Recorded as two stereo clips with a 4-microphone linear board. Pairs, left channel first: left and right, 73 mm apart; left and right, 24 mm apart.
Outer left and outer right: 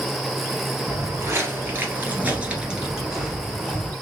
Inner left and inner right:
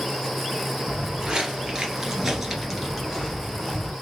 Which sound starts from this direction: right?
Footsteps, at 0.9 s.